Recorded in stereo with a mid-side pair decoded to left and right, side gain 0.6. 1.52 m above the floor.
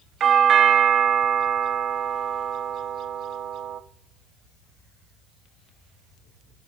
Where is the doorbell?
45° right, 0.6 m.